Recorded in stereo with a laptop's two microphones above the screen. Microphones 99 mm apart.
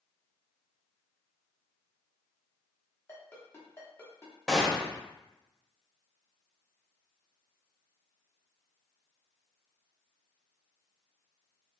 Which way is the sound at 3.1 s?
25° left (ahead or behind).